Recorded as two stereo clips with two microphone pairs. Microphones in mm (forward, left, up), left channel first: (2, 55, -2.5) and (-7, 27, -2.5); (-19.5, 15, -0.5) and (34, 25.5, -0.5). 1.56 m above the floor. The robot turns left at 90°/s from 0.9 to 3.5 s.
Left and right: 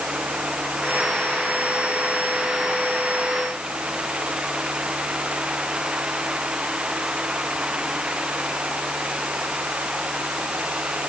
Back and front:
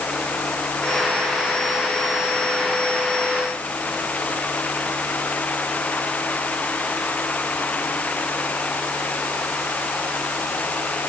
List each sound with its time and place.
Only background noise.